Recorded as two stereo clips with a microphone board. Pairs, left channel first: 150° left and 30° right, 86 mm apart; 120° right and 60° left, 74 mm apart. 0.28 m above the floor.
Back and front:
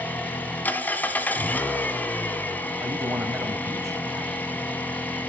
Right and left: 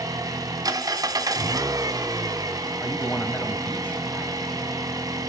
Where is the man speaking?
65° right, 1.4 m.